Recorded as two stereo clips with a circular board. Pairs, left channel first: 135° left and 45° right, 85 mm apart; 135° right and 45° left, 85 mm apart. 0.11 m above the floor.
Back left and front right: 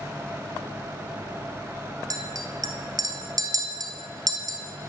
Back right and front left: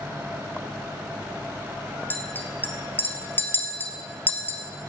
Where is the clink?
75° right, 1.4 m.